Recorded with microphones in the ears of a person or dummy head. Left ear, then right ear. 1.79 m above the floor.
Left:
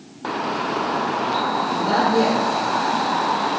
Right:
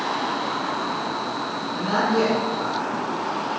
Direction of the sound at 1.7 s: 35° right (ahead or behind).